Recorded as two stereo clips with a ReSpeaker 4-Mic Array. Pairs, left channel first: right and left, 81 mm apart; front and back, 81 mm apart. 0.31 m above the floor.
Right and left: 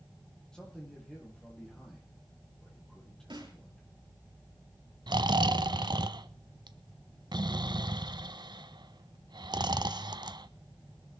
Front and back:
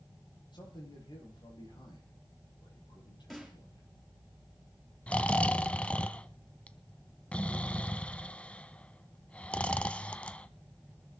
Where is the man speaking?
10° right, 9 m.